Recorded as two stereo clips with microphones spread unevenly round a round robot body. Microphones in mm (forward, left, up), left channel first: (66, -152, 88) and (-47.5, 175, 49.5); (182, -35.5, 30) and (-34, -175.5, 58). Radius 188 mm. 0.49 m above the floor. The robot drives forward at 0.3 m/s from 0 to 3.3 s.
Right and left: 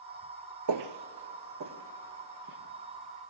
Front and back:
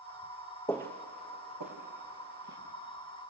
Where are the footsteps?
115° left, 0.5 m; by 2.6 s 170° left, 3.5 m.